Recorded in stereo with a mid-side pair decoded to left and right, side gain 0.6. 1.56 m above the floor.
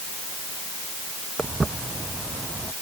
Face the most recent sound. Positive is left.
turn(degrees=-15)